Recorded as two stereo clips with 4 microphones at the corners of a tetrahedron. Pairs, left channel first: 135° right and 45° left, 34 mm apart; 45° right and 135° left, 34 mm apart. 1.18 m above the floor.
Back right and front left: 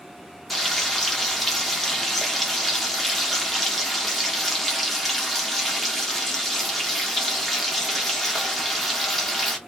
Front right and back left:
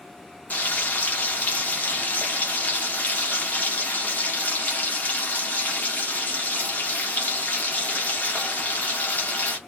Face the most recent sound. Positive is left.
turn(degrees=-50)